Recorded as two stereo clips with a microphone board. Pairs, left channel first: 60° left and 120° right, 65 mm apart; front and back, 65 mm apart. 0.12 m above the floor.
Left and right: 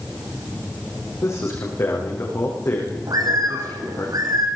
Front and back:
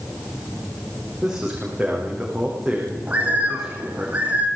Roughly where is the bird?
Right.